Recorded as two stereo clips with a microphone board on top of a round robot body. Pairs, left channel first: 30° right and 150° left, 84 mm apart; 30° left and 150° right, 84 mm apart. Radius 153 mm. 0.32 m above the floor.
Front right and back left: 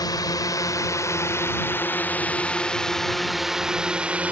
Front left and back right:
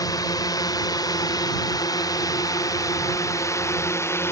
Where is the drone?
Straight ahead; by 4.3 s 80° left.